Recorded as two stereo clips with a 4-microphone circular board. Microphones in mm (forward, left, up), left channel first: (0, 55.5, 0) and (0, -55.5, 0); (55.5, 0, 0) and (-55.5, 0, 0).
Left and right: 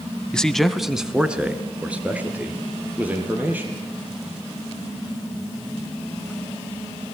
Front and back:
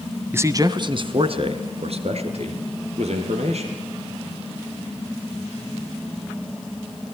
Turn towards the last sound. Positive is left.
turn(degrees=-165)